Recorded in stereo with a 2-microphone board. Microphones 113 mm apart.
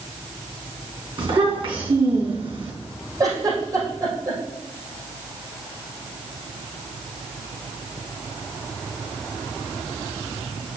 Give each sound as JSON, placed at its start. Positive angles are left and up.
{"t": 1.2, "sound": "a child speaking", "side_deg": -50, "distance_m": 4.0}
{"t": 3.2, "sound": "a giggle", "side_deg": -30, "distance_m": 4.5}